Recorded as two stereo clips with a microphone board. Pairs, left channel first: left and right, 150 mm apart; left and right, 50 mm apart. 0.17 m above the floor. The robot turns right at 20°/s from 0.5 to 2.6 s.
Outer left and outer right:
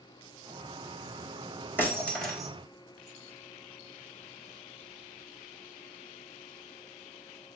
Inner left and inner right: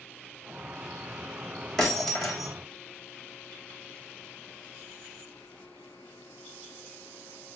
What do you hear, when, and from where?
1.8 s breaking glass: 15° left (ahead or behind), 3.5 m; by 2.5 s centre (ahead or behind), 3.5 m